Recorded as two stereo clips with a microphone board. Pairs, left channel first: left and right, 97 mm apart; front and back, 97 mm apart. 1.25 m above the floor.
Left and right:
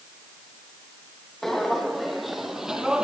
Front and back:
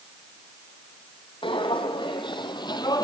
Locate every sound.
1.4 s footsteps: straight ahead, 2.5 m; by 3.0 s 10° right, 1.7 m